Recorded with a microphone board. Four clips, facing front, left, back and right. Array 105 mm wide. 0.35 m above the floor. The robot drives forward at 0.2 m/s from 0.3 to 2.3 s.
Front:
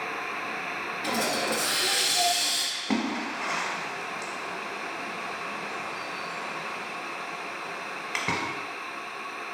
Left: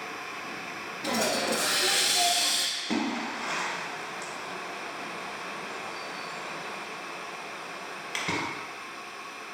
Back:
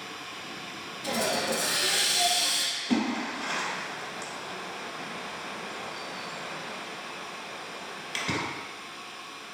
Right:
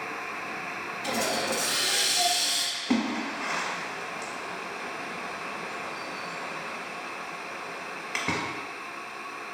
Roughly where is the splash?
Ahead right.